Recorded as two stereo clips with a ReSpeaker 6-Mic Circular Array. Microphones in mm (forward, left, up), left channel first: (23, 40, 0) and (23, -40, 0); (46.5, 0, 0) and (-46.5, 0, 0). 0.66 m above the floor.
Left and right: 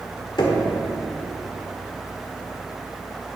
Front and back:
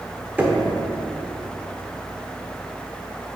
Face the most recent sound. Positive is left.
turn(degrees=105)